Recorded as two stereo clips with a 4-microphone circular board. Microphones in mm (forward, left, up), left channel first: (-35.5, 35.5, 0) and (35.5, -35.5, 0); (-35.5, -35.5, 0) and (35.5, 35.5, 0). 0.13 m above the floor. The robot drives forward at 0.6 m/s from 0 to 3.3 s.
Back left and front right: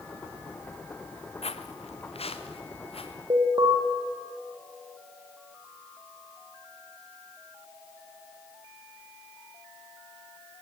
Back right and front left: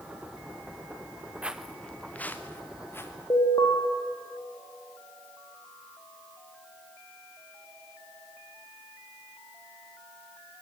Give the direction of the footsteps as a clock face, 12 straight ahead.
8 o'clock.